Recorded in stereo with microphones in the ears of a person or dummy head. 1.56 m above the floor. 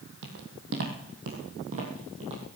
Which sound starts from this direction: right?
Footsteps, at 0.2 s.